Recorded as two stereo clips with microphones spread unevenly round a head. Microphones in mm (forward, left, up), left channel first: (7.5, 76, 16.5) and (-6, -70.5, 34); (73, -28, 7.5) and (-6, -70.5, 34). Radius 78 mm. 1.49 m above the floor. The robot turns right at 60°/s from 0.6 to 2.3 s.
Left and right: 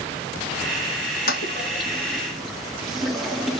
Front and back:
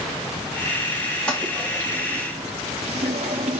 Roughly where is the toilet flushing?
Behind left.